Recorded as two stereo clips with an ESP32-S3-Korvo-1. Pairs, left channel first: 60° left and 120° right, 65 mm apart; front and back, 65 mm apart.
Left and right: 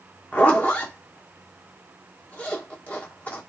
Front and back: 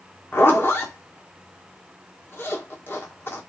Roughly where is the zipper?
Ahead.